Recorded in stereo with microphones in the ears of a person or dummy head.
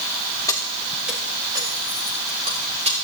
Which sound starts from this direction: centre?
Keys jangling, at 0.5 s.